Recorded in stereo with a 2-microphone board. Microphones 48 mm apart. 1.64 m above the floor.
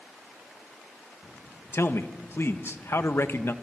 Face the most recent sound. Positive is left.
turn(degrees=60)  # may be behind; listen again after turning